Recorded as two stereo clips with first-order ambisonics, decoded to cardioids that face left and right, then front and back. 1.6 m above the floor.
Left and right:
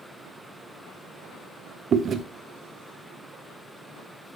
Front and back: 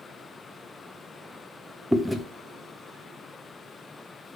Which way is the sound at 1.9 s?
90° right.